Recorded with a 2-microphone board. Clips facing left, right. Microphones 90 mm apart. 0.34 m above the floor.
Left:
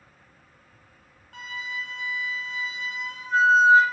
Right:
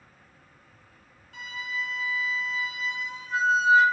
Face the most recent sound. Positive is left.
turn(degrees=60)  # may be behind; listen again after turning